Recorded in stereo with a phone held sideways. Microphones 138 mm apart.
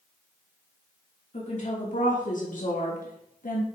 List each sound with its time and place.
1.3 s a woman speaking: 60° left (ahead or behind), 2.5 m; by 3.6 s 75° left (ahead or behind), 1.4 m